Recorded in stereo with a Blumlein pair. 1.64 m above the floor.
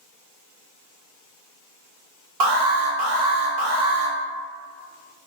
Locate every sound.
2.4 s an alarm: 40° right, 1.0 m